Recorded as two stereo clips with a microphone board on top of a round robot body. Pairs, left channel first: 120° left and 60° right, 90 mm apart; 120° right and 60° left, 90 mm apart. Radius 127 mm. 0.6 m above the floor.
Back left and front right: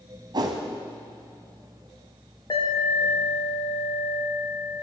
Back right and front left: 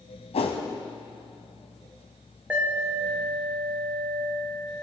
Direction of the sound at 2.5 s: 130° left.